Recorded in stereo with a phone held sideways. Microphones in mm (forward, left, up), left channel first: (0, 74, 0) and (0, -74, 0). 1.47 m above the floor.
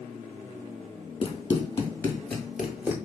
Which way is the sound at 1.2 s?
35° left (ahead or behind).